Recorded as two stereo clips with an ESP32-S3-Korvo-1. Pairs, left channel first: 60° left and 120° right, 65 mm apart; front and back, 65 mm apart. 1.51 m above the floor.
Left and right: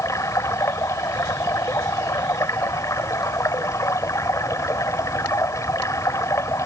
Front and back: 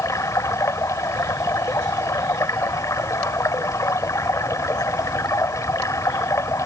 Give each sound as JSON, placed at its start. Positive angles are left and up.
{"t": 0.0, "sound": "running water", "azimuth_deg": 30}